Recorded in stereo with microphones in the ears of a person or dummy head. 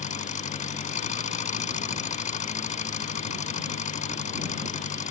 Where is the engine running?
45° left (ahead or behind).